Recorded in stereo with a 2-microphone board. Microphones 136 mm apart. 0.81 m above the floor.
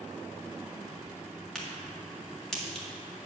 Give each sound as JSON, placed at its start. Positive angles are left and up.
{"t": 1.6, "sound": "a crack", "side_deg": 5, "distance_m": 1.8}